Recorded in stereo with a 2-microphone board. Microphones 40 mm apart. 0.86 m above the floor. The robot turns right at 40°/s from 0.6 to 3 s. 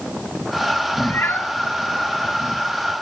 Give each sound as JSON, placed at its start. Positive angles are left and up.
{"t": 1.0, "sound": "a cat meowing", "side_deg": 75, "distance_m": 2.0}